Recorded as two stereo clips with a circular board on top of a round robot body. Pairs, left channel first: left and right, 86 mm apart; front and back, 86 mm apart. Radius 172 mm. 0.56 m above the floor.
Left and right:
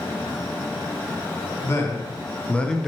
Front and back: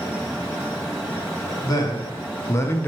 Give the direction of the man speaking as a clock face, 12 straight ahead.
11 o'clock.